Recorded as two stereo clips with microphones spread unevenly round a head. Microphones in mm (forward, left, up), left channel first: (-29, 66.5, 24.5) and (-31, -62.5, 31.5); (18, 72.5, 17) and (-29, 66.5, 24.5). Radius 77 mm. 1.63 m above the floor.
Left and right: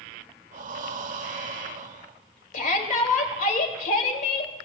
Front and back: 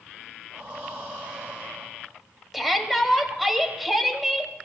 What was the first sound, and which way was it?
Breathing, 110° right.